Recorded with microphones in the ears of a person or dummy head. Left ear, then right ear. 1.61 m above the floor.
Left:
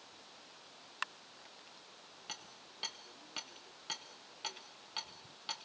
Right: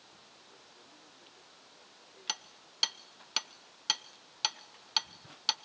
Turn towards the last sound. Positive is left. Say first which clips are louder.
# right 10 dB
turn(degrees=-50)  # may be behind; listen again after turning